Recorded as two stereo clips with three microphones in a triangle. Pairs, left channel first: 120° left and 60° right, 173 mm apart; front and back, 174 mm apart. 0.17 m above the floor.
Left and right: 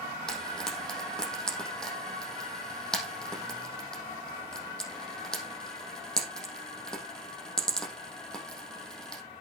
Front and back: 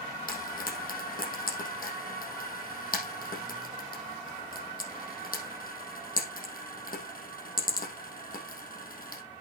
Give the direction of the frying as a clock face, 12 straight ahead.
11 o'clock.